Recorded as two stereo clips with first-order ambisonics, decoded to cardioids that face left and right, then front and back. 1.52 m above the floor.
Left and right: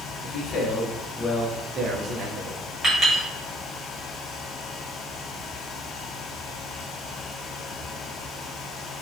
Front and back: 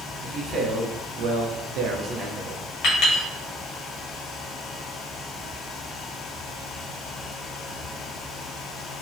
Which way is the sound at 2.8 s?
10° right.